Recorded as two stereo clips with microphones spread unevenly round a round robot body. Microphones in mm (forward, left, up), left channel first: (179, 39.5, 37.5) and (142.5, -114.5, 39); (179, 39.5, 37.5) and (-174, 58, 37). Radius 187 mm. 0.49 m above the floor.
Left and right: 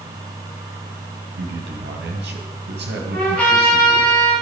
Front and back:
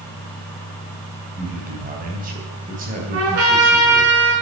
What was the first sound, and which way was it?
A man speaking, 115° right.